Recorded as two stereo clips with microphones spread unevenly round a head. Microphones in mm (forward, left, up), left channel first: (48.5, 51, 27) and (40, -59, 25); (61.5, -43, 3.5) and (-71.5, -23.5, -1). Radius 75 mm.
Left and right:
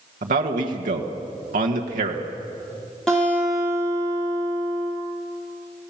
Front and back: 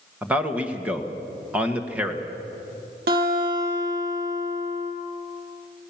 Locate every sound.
0.2 s a man speaking: 110° right, 1.5 m
3.1 s a guitar: 170° left, 6.5 m